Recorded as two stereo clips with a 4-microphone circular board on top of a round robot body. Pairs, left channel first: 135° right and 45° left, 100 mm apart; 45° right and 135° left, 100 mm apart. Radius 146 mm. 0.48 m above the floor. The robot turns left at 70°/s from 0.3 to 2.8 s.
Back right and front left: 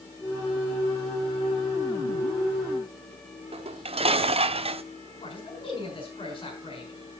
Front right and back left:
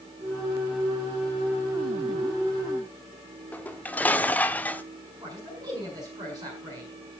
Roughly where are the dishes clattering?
Ahead left.